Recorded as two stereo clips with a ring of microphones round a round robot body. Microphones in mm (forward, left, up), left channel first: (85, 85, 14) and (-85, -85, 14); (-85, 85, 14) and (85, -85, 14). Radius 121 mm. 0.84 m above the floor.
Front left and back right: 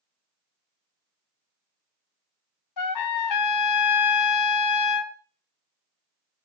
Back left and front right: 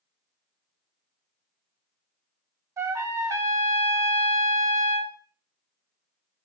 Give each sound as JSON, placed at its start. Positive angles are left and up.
{"t": 2.8, "sound": "a trumpet", "azimuth_deg": 35, "distance_m": 0.7}